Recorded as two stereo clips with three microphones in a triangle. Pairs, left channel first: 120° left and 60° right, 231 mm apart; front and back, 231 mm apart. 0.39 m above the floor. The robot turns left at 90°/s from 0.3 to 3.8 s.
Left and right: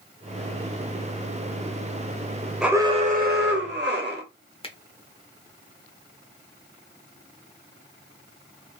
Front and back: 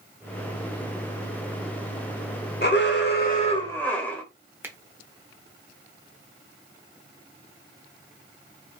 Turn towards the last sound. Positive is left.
turn(degrees=110)